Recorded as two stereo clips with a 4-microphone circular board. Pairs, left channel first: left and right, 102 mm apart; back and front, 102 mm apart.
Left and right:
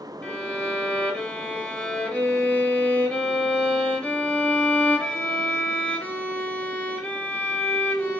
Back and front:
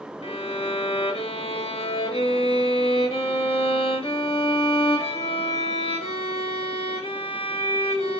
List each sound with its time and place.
0.2 s a violin: 170° left, 0.6 m